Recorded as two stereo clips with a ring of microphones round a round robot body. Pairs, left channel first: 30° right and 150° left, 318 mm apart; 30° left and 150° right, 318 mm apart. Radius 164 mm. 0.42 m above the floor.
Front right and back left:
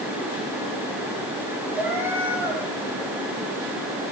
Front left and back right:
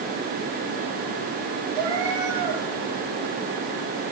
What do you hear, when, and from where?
1.8 s a cat meowing: 125° right, 9.5 m